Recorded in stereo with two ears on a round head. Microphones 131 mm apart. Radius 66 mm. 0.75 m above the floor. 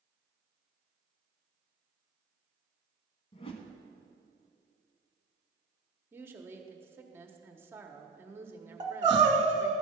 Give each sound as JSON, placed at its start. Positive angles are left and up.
{"t": 3.3, "sound": "a whoosh", "side_deg": 40, "distance_m": 1.0}
{"t": 6.1, "sound": "a woman speaking", "side_deg": -15, "distance_m": 1.0}
{"t": 8.8, "sound": "crying", "side_deg": -30, "distance_m": 1.3}